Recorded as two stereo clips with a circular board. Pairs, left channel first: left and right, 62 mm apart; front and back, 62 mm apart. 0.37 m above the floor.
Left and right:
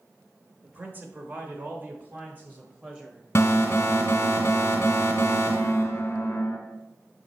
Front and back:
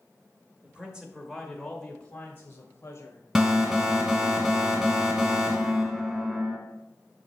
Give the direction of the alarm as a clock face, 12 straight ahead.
8 o'clock.